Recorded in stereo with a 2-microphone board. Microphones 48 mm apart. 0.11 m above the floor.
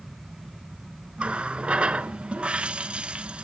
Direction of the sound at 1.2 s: 25° right (ahead or behind).